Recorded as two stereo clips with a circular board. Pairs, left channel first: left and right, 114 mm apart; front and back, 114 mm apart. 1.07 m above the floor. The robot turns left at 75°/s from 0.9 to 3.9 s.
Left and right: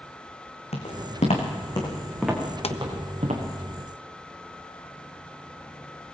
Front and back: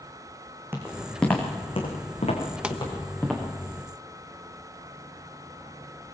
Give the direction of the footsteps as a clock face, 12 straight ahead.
8 o'clock.